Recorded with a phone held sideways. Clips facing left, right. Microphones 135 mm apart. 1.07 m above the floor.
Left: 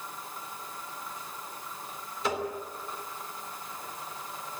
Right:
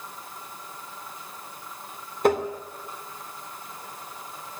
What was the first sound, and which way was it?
Tapping, 55° right (ahead or behind).